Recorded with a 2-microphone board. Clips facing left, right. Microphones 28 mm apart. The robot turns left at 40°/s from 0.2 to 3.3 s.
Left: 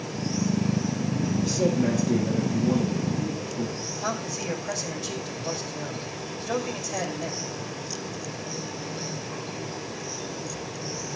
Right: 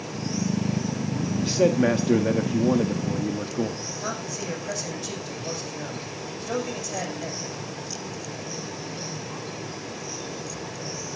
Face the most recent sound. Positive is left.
turn(degrees=10)  # may be behind; listen again after turning